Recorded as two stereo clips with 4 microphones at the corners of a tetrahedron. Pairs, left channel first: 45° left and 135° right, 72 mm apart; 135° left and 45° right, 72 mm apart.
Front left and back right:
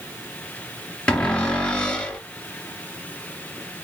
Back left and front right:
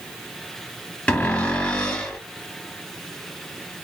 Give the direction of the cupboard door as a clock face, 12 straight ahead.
9 o'clock.